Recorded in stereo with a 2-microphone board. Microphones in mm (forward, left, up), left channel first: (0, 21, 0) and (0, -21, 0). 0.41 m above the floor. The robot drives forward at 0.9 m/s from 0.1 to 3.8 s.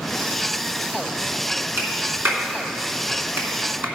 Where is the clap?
55° right (ahead or behind), 4 m; by 3.9 s 75° right (ahead or behind), 3 m.